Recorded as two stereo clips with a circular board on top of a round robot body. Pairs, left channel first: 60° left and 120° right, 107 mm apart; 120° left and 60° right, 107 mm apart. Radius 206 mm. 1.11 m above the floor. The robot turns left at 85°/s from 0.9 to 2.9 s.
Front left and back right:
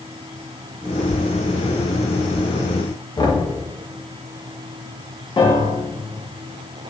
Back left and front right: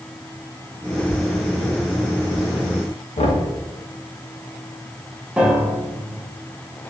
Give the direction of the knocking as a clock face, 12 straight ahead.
8 o'clock.